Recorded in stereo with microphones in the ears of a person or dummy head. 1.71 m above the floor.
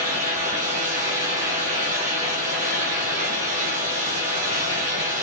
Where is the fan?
50° right (ahead or behind), 1.1 m.